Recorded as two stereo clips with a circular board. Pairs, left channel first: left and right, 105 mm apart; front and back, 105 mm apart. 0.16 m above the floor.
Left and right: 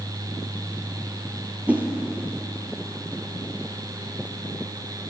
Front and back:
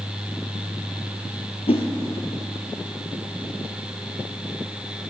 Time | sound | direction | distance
1.7 | a whoosh | 15° right | 1.2 m